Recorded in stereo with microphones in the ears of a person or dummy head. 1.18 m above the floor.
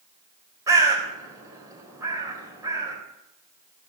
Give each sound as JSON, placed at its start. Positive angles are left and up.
{"t": 0.7, "sound": "a bird", "side_deg": -20, "distance_m": 4.0}